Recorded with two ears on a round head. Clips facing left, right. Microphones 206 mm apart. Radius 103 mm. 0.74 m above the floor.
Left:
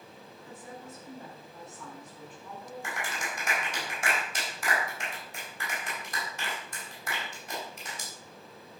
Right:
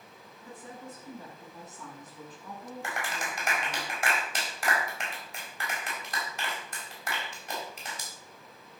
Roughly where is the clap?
Right.